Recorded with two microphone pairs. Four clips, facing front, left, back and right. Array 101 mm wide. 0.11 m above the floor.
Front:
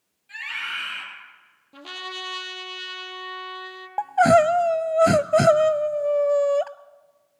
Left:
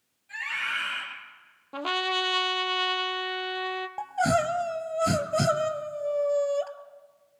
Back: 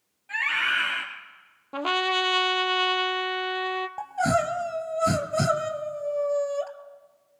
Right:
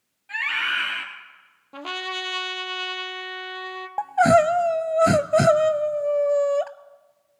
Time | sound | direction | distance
0.3 | a scream | 135° right | 3.5 m
1.7 | a trumpet | 160° left | 0.6 m
4.0 | crying | 40° right | 0.5 m